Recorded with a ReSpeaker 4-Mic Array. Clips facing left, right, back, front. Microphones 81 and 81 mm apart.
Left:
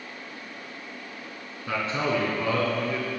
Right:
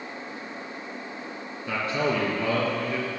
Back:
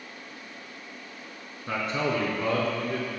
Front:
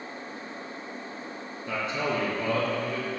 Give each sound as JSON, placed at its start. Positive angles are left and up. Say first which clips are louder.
{"t": 1.7, "sound": "a man speaking", "louder": "right 1 dB, back 1 dB", "azimuth_deg": 145, "distance_m": 3.0}